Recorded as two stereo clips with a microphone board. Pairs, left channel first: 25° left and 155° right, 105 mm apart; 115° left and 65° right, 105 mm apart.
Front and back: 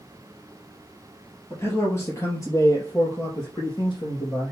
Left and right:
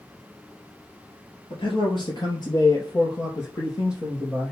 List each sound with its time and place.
1.5 s a man speaking: 85° left, 3 m; by 4.5 s 50° left, 3 m